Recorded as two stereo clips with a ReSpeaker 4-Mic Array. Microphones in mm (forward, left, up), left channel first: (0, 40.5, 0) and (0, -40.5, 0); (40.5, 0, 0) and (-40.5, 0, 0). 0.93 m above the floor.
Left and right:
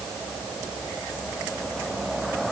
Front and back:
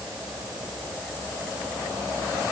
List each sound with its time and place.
Only background noise.